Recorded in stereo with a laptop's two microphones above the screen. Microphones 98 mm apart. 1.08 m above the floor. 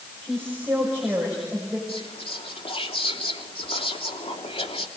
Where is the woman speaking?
25° right (ahead or behind), 6 m.